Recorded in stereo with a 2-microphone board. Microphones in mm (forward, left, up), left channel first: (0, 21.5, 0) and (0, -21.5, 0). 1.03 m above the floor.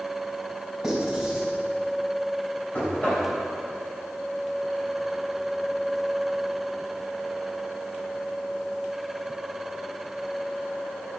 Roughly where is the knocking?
Left.